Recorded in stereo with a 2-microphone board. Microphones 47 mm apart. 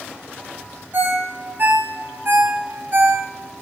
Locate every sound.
0.9 s a ringtone: 45° right (ahead or behind), 1.4 m